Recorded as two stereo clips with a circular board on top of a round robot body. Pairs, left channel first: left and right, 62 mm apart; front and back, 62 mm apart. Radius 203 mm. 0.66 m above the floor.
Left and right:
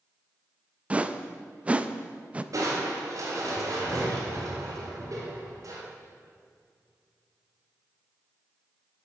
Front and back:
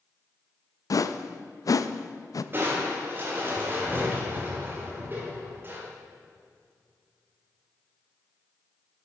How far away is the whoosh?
About 0.6 m.